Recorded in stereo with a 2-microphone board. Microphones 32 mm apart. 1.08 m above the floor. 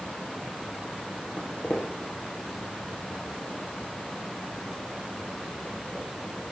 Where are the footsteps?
50° left (ahead or behind), 1.6 m; by 6.0 s 55° left (ahead or behind), 4.5 m.